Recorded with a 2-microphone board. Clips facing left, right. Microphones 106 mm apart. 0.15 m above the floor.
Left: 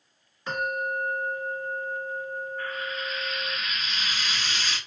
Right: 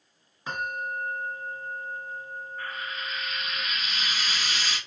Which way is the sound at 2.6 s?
10° right (ahead or behind).